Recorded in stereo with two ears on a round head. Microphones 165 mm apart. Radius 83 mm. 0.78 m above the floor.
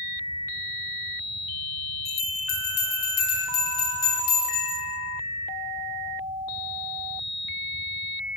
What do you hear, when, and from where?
2.0 s a bell: 80° left, 1.5 m